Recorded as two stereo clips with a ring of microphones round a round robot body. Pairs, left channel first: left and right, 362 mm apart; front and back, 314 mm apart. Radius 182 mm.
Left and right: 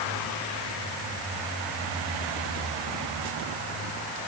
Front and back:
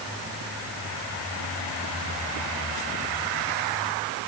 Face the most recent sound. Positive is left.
No sound to turn to.